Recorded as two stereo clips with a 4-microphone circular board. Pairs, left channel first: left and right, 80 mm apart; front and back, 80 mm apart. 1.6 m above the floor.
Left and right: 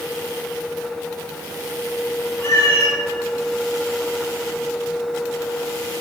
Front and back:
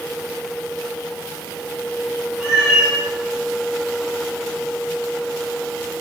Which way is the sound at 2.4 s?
105° left.